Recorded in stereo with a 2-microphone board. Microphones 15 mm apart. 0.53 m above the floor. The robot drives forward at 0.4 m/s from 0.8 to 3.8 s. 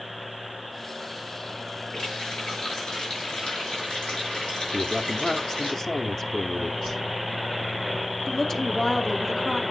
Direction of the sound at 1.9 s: 85° left.